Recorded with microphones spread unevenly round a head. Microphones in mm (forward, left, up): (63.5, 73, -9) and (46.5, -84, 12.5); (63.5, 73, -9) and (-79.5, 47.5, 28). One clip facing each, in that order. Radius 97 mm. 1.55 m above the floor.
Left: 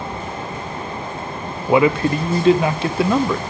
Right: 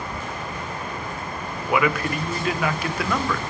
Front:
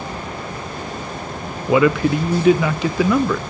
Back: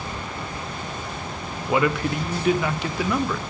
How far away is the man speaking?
About 0.9 m.